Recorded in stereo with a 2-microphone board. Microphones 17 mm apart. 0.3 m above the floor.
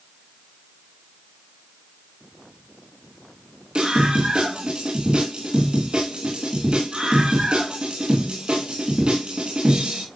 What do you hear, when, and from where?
3.8 s a scream: 65° right (ahead or behind), 3 m